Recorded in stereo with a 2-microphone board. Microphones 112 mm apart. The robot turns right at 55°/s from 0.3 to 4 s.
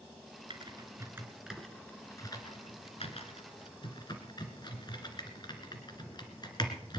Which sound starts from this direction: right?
Typing on a keyboard, at 0.5 s.